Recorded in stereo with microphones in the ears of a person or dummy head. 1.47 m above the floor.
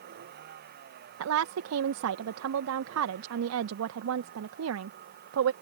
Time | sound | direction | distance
0.0 | a vehicle | 60° right (ahead or behind) | ?
1.2 | a woman speaking | 70° right (ahead or behind) | ?